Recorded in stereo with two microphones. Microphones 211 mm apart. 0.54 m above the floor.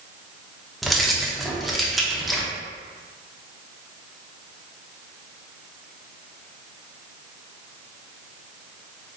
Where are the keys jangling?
Centre (ahead or behind), 0.6 m.